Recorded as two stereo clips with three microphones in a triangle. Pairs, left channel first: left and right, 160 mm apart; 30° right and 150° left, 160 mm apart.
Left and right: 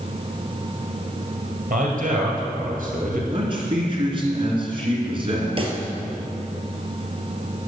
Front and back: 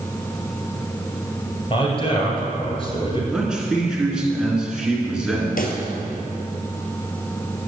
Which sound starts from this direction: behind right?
A man speaking, at 3.3 s.